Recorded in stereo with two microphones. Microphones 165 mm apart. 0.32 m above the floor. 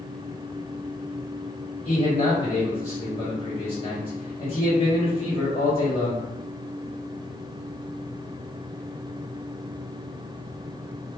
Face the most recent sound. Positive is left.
turn(degrees=40)  # may be behind; listen again after turning